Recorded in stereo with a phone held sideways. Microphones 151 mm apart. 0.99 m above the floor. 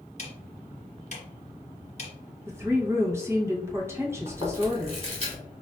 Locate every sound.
0.2 s ticking: 45° left (ahead or behind), 0.9 m
2.5 s a woman speaking: 15° right (ahead or behind), 0.9 m
4.3 s chewing: 40° right (ahead or behind), 1.4 m